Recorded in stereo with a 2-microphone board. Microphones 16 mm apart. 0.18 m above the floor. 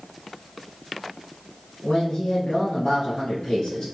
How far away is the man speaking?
About 2 m.